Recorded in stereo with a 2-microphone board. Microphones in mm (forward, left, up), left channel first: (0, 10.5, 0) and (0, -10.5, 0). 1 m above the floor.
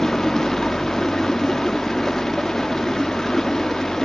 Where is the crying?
I don't hear crying.